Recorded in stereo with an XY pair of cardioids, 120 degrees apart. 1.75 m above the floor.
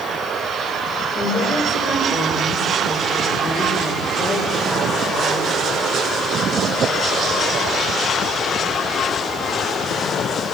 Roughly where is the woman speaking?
Ahead left.